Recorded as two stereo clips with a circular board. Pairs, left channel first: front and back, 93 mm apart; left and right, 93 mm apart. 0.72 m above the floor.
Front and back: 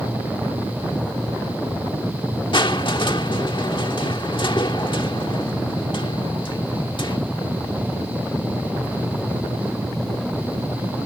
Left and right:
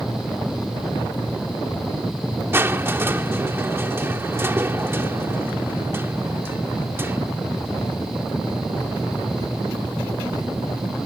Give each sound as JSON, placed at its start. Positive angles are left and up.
{"t": 2.5, "sound": "crushing", "azimuth_deg": -25}